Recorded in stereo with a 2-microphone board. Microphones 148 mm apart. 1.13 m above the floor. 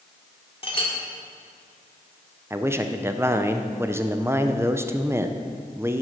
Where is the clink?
40° left (ahead or behind), 1.5 m.